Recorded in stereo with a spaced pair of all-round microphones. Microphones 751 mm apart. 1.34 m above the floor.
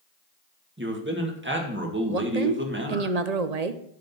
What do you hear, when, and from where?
0.8 s a man speaking: 15° right (ahead or behind), 2 m
2.1 s a woman speaking: 60° right (ahead or behind), 0.9 m